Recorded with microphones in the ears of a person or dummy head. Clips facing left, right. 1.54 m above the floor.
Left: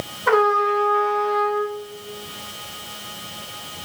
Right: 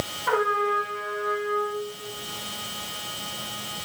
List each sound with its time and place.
0.3 s a trumpet: 65° left (ahead or behind), 0.8 m